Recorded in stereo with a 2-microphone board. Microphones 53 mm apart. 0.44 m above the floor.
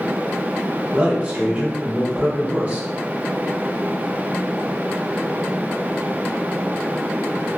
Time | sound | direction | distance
0.9 | a man speaking | 25° right (ahead or behind) | 1.2 m